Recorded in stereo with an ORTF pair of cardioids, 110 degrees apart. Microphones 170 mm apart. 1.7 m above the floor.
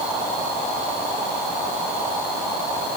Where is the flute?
No flute in this recording.